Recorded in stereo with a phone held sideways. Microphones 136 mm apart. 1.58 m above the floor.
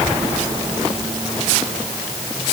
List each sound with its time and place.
Only background noise.